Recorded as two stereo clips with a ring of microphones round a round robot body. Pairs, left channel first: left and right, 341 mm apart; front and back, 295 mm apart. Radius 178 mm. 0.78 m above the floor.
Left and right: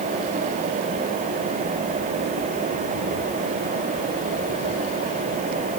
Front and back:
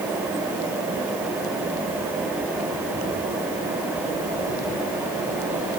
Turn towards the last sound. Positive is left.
No sound to turn to.